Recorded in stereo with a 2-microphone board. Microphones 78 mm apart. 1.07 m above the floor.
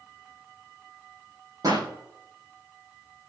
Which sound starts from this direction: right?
A pop, at 1.6 s.